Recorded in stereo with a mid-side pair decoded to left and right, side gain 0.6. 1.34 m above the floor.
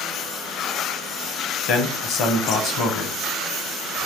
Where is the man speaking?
60° left, 1.1 m.